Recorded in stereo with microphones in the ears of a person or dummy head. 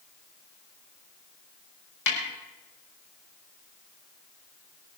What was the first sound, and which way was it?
A snare drum, 85° left.